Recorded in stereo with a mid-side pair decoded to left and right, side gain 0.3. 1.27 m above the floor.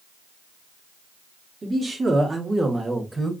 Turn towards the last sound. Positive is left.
turn(degrees=-15)